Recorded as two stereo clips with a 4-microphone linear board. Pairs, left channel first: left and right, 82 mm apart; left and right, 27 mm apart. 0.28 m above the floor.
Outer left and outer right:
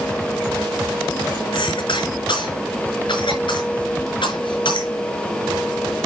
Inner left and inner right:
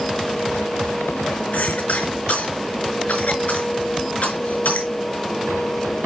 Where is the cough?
70° left (ahead or behind), 4.5 m.